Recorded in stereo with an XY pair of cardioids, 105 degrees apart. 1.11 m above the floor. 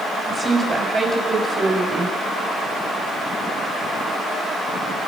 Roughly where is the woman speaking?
Ahead right.